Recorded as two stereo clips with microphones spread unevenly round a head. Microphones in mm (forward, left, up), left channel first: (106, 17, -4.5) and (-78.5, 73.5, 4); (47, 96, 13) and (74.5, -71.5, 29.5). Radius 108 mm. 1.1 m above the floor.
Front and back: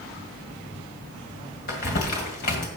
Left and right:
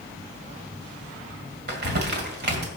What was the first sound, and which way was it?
Crumpling, 65° right.